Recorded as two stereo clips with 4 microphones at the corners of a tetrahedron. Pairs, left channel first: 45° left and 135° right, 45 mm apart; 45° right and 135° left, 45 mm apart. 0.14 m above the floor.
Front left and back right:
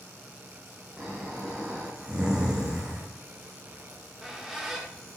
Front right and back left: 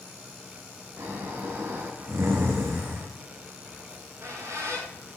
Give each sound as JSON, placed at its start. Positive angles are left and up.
{"t": 1.0, "sound": "snoring", "azimuth_deg": 150, "distance_m": 4.0}
{"t": 3.9, "sound": "a squeak", "azimuth_deg": 145, "distance_m": 5.5}